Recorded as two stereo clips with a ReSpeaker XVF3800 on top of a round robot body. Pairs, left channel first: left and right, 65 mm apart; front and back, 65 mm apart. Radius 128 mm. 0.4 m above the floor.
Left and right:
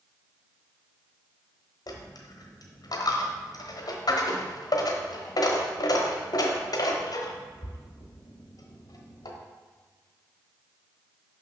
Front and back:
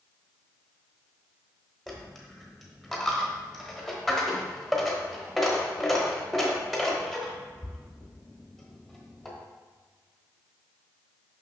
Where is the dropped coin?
90° left, 1.0 m.